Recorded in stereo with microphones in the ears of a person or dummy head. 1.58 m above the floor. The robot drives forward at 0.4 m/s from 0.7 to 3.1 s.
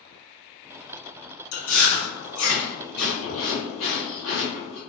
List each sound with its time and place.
1.5 s chewing: 80° left, 1.8 m